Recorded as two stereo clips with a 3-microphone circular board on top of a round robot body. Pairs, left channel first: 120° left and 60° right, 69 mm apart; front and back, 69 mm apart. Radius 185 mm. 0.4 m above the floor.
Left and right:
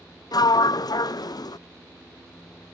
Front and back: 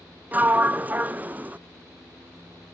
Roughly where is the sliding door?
Behind left.